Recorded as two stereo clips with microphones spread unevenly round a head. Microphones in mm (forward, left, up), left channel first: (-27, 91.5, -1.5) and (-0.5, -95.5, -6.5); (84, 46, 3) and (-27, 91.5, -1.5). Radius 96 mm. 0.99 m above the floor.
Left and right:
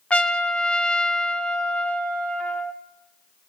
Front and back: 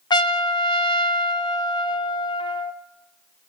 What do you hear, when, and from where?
0.1 s a trumpet: 15° left, 0.7 m